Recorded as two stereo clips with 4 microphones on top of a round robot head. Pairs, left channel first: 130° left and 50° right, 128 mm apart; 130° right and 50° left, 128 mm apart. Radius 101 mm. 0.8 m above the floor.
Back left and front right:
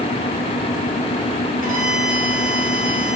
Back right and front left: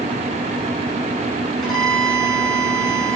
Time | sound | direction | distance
1.6 | a violin | 40° right | 2.5 m